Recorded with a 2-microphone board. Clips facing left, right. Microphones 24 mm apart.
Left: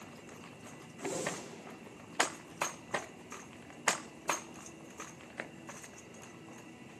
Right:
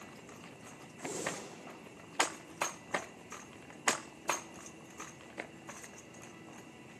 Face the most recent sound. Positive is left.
turn(degrees=70)  # may be behind; listen again after turning